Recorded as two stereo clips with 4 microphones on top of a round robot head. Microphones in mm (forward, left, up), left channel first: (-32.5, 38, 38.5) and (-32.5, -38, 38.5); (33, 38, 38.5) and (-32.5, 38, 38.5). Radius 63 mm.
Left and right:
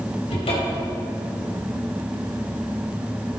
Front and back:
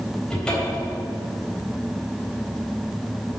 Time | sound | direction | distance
0.3 | a cupboard door | 80° left | 3 m